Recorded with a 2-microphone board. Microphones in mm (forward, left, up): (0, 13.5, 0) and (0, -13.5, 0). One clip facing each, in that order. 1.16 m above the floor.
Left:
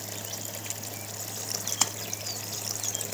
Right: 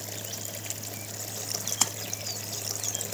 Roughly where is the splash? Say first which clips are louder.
Even; centre.